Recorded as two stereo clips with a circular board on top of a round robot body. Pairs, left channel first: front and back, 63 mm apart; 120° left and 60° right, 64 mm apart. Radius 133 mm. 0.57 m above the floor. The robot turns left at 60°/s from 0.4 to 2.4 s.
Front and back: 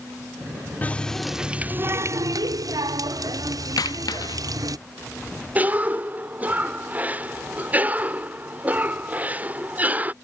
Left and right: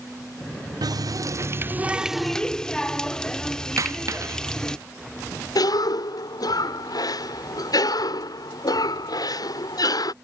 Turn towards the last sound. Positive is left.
turn(degrees=115)